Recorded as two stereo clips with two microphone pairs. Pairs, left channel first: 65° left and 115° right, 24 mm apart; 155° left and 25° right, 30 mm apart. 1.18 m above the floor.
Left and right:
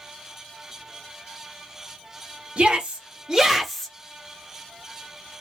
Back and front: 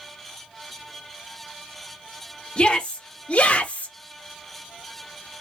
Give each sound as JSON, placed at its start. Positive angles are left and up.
{"t": 2.6, "sound": "a shout", "azimuth_deg": -155, "distance_m": 1.1}